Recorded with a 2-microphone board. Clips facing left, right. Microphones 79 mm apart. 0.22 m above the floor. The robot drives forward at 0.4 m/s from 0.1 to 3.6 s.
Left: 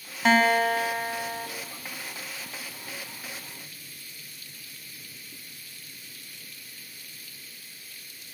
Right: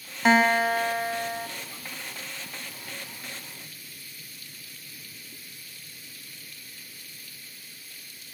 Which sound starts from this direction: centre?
A guitar, at 0.2 s.